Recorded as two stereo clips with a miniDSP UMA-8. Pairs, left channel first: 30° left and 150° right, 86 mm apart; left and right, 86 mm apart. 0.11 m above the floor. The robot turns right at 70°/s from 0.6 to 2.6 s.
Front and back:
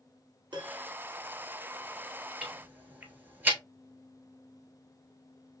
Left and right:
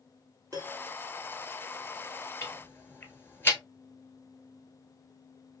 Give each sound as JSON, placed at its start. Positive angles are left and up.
{"t": 0.5, "sound": "a piano", "azimuth_deg": -135, "distance_m": 1.4}
{"t": 2.4, "sound": "ticking", "azimuth_deg": 135, "distance_m": 0.9}